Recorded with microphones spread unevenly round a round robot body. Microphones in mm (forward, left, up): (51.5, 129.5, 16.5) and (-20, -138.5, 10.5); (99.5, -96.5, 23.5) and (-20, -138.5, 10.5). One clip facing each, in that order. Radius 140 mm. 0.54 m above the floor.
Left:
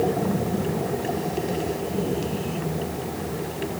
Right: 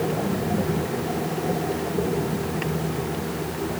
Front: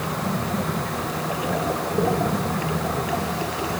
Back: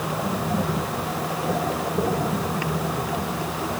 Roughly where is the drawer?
I don't hear a drawer.